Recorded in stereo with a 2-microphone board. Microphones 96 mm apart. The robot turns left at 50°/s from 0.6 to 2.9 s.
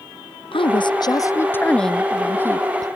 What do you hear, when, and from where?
0.5 s a woman speaking: 70° left; by 2.9 s 45° right